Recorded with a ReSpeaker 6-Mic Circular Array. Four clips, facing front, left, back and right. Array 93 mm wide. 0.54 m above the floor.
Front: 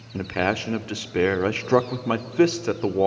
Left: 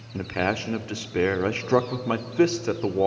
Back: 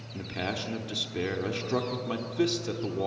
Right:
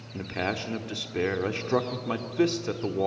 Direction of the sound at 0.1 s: 25° left.